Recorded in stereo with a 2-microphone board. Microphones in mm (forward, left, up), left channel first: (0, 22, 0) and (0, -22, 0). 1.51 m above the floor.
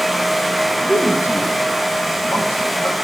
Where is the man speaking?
60° left (ahead or behind), 2.5 m; by 3.0 s 75° left (ahead or behind), 3.5 m.